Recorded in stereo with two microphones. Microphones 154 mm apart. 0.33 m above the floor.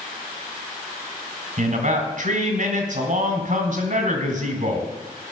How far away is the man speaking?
About 2.5 m.